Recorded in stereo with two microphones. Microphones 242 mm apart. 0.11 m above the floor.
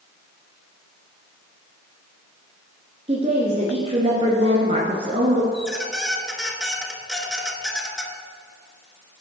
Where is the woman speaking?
25° right (ahead or behind), 1.6 m.